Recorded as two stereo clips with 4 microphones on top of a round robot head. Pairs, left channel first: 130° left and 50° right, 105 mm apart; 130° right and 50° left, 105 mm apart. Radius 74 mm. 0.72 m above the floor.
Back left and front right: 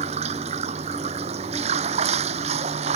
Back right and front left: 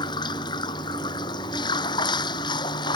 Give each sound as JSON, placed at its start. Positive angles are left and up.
{"t": 0.0, "sound": "running water", "azimuth_deg": -75}